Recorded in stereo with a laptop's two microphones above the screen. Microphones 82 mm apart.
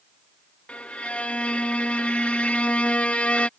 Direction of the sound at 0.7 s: 15° left (ahead or behind).